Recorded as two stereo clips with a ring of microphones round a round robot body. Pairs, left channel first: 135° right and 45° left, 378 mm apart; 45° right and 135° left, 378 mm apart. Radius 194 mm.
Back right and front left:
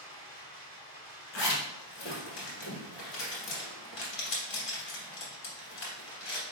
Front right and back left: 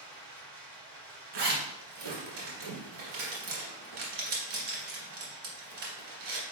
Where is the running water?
110° left, 1.7 m.